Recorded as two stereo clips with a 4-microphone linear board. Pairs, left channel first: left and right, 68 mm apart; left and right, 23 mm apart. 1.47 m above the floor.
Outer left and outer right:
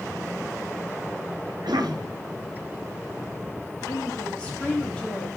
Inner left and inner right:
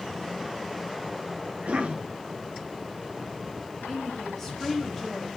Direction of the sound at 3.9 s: 15° left (ahead or behind).